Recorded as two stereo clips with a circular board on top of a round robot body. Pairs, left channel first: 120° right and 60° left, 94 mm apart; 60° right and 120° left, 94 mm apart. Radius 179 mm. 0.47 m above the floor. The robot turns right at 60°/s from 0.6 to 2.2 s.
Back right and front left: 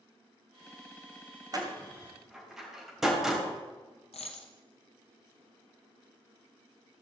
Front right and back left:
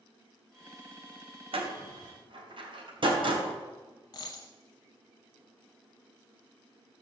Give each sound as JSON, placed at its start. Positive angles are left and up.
{"t": 1.5, "sound": "a door slam", "azimuth_deg": 105, "distance_m": 2.5}
{"t": 4.1, "sound": "a dropped coin", "azimuth_deg": -110, "distance_m": 0.5}